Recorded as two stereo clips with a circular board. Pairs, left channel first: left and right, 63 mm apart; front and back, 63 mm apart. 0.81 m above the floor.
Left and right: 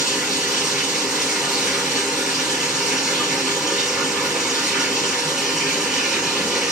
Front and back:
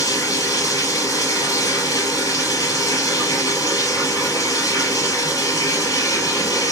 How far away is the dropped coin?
No dropped coin in this recording.